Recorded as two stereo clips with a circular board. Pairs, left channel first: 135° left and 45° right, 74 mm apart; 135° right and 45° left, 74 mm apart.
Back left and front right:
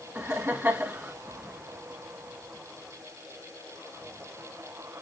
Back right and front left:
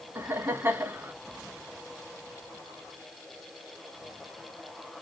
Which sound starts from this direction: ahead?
Laughter, at 0.1 s.